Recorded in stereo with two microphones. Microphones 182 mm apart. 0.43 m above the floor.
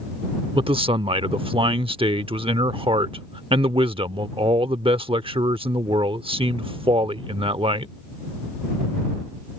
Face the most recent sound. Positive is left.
turn(degrees=-30)  # may be behind; listen again after turning